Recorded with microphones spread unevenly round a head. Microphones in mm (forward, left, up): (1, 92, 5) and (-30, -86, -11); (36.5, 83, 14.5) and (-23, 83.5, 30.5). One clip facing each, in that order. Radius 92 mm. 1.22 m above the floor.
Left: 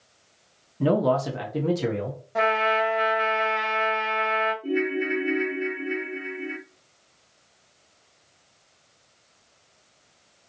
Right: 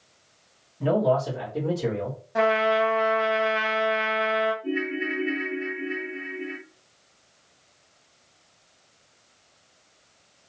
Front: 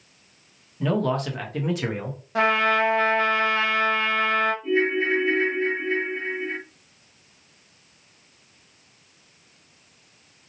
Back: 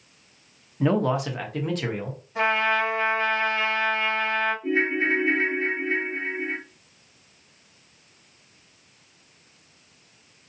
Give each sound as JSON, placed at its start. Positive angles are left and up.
{"t": 0.8, "sound": "a man speaking", "azimuth_deg": 110, "distance_m": 0.8}
{"t": 2.4, "sound": "a trumpet", "azimuth_deg": -15, "distance_m": 0.7}
{"t": 4.6, "sound": "a ringtone", "azimuth_deg": 145, "distance_m": 1.1}